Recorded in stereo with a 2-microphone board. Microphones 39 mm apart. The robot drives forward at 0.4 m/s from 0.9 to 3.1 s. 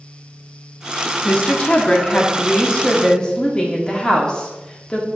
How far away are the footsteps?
No footsteps in this recording.